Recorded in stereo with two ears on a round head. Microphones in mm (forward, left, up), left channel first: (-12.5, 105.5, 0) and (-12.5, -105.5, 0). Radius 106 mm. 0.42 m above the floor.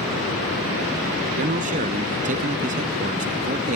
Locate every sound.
1.4 s a man speaking: 35° right (ahead or behind)